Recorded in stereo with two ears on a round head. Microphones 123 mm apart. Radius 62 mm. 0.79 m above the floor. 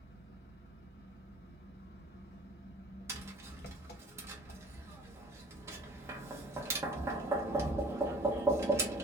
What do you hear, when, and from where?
0.0 s an engine running: 85° left, 0.9 m
3.1 s tapping: 20° right (ahead or behind), 0.9 m